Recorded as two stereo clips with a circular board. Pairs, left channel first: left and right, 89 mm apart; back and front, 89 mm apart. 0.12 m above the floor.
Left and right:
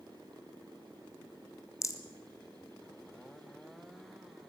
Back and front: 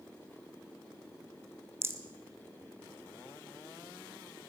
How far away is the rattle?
About 1.2 m.